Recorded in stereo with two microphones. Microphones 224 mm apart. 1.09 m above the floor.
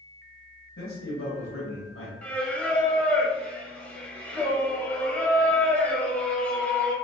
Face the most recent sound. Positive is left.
turn(degrees=5)  # may be behind; listen again after turning